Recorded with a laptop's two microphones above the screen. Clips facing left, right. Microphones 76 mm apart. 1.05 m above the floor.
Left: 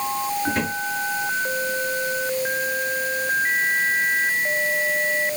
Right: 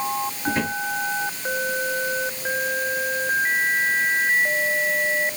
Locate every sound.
0.5 s a drawer: 5° right (ahead or behind), 7.5 m